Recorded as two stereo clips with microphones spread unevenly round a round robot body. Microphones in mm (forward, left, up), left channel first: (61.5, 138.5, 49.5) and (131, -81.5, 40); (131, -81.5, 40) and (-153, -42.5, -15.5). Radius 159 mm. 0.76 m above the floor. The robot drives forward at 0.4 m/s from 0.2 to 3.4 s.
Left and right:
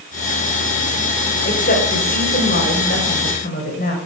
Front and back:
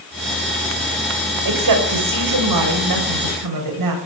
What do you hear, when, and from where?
1.4 s a woman speaking: 170° left, 3.5 m